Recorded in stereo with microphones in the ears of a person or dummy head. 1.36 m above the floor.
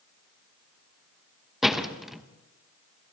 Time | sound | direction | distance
1.6 | a door slam | centre (ahead or behind) | 1.2 m